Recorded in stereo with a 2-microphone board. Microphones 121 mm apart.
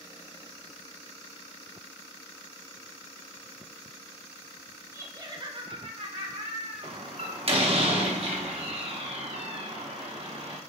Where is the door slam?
55° right (ahead or behind), 0.7 m.